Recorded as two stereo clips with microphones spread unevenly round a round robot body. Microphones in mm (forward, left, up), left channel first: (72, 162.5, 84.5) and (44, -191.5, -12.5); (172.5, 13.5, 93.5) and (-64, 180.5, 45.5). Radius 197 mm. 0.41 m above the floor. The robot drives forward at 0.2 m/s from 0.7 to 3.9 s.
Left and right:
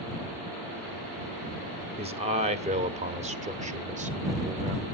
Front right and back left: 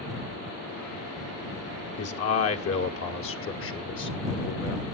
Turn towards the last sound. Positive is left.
turn(degrees=-65)